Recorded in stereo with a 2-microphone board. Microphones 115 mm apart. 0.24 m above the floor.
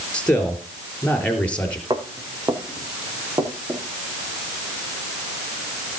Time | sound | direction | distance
0.1 | a man speaking | 10° left (ahead or behind) | 3.5 m
1.9 | footsteps | 40° right (ahead or behind) | 3.5 m